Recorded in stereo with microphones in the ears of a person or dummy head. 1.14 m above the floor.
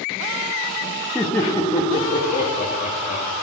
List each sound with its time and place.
1.1 s laughter: 10° left (ahead or behind), 1.3 m; by 3.2 s 50° left (ahead or behind), 1.9 m